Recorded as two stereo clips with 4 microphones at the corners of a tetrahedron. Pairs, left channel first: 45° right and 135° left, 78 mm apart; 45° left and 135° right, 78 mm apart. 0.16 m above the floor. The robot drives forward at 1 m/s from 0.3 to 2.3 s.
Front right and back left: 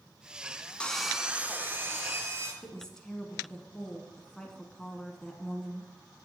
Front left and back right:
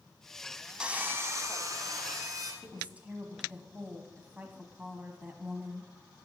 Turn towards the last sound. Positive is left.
turn(degrees=-110)